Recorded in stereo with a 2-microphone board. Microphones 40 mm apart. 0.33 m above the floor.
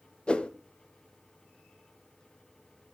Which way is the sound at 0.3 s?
25° left (ahead or behind).